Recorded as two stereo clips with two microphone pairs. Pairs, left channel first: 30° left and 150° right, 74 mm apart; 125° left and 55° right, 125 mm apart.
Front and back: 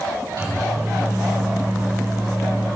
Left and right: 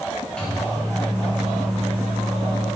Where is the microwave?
155° right, 3 m.